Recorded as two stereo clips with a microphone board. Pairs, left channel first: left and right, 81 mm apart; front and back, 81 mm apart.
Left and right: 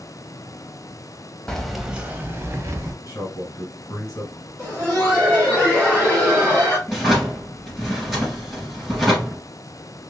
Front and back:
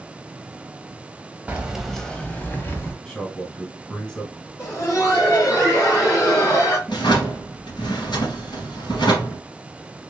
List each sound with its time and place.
1.5 s keys jangling: 155° left, 0.7 m; by 2.9 s 50° right, 1.2 m
3.0 s a man speaking: 75° left, 1.6 m
4.6 s laughter: 35° left, 2.0 m
6.9 s a drawer: straight ahead, 2.5 m